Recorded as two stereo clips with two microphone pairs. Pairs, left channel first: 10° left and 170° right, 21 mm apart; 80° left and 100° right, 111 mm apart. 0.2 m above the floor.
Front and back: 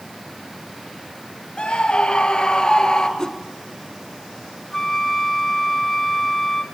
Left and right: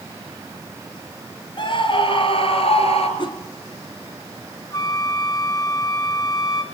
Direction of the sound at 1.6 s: 40° left.